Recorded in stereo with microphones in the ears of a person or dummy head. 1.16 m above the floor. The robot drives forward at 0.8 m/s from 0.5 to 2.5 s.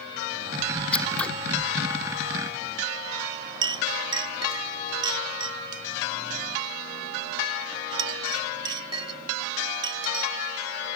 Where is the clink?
25° right (ahead or behind).